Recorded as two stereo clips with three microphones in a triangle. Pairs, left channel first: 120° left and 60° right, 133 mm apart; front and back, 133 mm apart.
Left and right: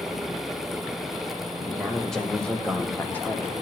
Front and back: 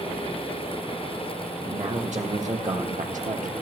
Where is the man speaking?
150° right, 2 m; by 3.5 s 170° right, 1.4 m.